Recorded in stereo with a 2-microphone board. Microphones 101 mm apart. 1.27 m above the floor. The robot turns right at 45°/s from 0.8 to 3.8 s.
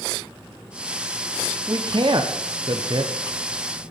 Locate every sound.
1.7 s a man speaking: 40° right (ahead or behind), 0.8 m; by 3.1 s 45° right (ahead or behind), 0.8 m